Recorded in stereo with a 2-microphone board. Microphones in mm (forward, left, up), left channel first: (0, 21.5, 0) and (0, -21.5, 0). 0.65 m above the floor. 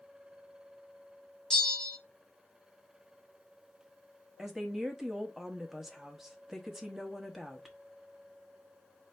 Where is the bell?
15° left (ahead or behind), 1.1 m.